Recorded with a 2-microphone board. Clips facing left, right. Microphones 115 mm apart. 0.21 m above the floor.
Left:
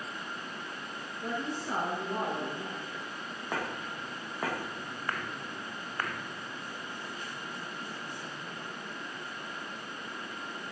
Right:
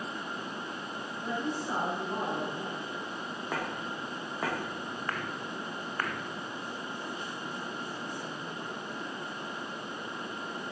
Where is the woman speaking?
60° right (ahead or behind), 6 m.